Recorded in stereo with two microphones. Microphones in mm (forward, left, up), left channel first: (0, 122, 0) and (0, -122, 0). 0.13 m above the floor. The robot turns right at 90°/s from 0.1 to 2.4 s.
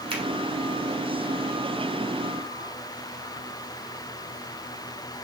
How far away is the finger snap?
About 1.0 m.